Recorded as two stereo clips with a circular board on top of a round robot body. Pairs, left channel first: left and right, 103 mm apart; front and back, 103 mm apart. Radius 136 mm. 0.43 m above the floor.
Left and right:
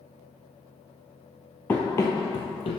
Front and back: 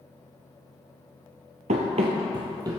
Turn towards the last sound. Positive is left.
turn(degrees=120)